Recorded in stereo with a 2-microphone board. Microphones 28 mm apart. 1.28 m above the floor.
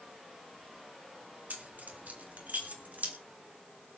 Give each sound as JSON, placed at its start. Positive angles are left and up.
{"t": 1.5, "sound": "keys jangling", "side_deg": -80, "distance_m": 3.0}